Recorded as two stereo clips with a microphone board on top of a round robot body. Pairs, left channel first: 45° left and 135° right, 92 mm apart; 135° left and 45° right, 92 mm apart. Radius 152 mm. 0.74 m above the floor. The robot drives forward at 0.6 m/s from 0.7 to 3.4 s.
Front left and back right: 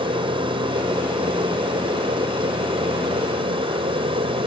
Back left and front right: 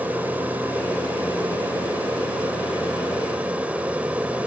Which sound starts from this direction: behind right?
An aircraft, at 0.0 s.